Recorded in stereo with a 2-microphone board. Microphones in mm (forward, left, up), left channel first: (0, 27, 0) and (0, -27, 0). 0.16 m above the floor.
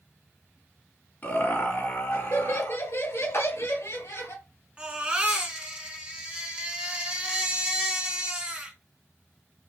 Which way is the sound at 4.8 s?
20° right (ahead or behind).